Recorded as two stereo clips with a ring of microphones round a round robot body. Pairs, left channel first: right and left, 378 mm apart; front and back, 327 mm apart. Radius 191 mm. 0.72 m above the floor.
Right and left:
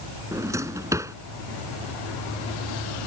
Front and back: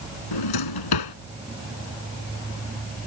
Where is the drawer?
10° left.